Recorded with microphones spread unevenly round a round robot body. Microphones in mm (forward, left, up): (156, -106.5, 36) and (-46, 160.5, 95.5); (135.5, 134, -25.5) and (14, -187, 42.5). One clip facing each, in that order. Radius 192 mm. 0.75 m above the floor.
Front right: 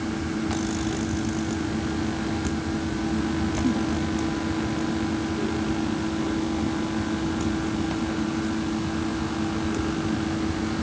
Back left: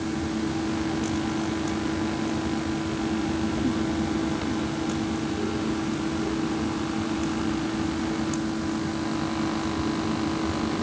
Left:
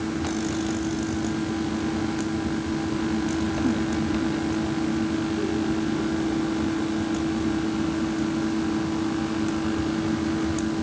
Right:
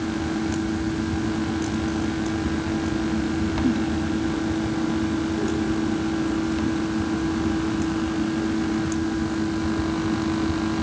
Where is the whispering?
No whispering in this recording.